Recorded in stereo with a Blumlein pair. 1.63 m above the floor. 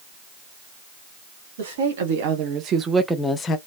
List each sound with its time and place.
1.6 s a woman speaking: 60° right, 1.4 m; by 3.6 s 30° left, 0.7 m